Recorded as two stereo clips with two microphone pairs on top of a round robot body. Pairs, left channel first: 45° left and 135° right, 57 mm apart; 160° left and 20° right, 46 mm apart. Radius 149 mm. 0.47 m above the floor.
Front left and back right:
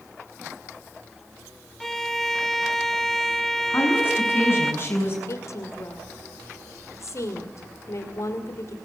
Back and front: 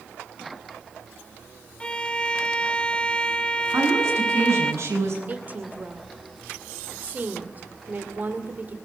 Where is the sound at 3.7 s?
5° right, 7.5 m.